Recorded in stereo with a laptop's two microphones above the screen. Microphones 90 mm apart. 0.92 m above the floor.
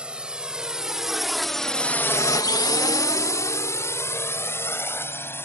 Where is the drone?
10° right (ahead or behind); by 5.5 s 25° left (ahead or behind).